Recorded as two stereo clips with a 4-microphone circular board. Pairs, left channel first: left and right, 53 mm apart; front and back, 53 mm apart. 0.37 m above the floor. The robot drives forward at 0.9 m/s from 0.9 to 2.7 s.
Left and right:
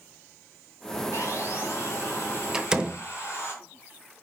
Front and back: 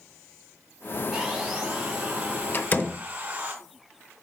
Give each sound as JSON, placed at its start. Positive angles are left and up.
{"t": 1.1, "sound": "sawing", "azimuth_deg": 95, "distance_m": 3.0}
{"t": 2.5, "sound": "a door slam", "azimuth_deg": -20, "distance_m": 0.9}